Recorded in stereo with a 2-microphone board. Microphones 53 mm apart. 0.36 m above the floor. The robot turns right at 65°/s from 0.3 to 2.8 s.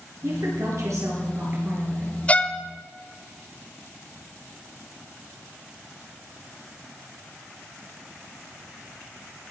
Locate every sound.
0.2 s a woman speaking: 120° right, 5.5 m; by 2.1 s straight ahead, 5.5 m
2.3 s a violin: 25° left (ahead or behind), 0.7 m; by 2.6 s 30° left (ahead or behind), 0.7 m